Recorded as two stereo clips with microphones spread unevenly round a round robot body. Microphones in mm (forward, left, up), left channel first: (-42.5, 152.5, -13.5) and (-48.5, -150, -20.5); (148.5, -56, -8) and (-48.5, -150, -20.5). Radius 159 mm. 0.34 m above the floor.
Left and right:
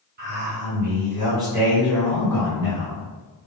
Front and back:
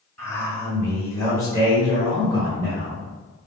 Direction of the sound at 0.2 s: 55° right.